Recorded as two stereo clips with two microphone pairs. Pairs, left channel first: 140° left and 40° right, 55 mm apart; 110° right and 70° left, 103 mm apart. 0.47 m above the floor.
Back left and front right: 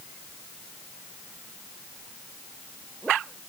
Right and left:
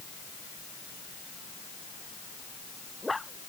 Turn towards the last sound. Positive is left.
No sound to turn to.